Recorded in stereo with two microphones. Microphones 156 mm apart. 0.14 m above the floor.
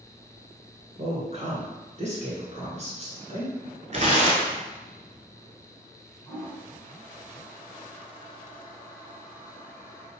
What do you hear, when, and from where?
1.0 s a woman speaking: 45° right (ahead or behind), 1.8 m
3.9 s tearing paper: 50° right (ahead or behind), 0.8 m
6.3 s a toilet flushing: 15° left (ahead or behind), 1.5 m